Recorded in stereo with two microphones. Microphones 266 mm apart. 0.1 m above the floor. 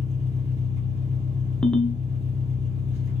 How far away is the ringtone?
About 0.7 m.